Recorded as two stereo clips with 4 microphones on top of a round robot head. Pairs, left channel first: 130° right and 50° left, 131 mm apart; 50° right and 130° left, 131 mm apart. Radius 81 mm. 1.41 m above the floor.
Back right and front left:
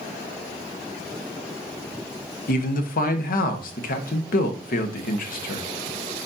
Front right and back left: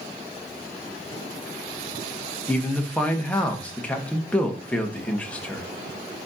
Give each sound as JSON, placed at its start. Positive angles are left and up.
{"t": 2.5, "sound": "a man speaking", "azimuth_deg": -130, "distance_m": 1.5}